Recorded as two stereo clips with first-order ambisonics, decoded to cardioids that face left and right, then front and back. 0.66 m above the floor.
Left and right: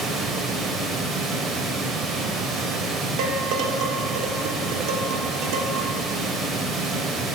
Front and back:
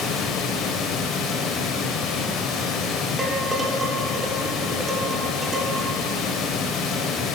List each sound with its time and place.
0.0 s running water: 35° right, 0.9 m
3.2 s dishes clattering: 105° right, 1.1 m